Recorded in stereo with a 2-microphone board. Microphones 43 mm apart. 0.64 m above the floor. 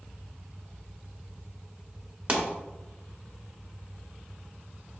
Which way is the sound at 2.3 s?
35° right (ahead or behind).